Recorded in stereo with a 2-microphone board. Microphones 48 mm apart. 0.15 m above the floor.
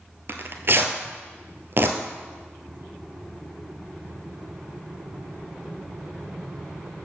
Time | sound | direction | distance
0.3 | tearing paper | 50° right (ahead or behind) | 1.0 m